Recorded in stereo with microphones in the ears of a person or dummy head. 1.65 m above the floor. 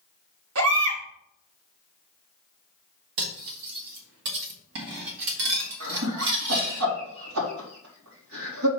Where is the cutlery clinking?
65° right (ahead or behind), 1.6 m.